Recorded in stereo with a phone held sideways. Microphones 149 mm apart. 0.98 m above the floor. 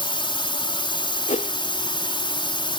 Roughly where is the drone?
Left.